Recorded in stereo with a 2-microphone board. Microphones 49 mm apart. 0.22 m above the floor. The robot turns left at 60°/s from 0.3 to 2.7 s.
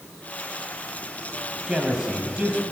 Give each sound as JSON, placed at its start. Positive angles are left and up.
{"t": 1.7, "sound": "a man speaking", "side_deg": -5, "distance_m": 0.9}